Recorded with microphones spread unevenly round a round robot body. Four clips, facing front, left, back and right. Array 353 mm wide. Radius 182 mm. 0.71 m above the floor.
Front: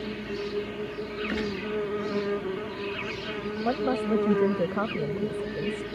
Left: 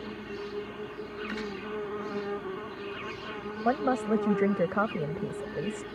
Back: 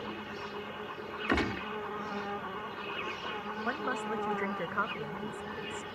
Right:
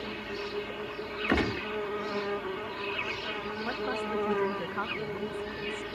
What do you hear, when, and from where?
0.0 s an insect: 5° left
1.3 s a gunshot: 115° right
3.6 s a woman speaking: 45° left